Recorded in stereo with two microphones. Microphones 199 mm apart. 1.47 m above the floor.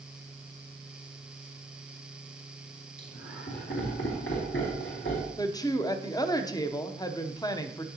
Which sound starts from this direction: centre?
A woman speaking, at 5.4 s.